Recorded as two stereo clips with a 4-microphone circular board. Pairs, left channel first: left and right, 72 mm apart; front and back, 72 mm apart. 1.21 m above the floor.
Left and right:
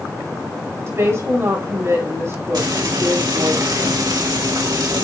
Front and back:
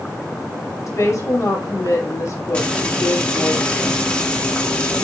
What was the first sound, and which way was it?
A woman speaking, 40° right.